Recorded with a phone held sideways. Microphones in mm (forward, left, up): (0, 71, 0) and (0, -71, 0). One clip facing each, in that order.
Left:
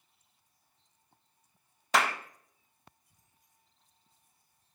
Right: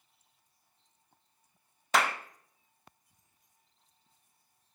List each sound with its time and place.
1.9 s a clap: centre (ahead or behind), 0.6 m